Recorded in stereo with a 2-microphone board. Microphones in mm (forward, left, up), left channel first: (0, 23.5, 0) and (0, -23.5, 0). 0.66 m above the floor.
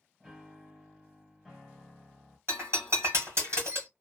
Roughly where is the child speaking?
I don't hear a child speaking.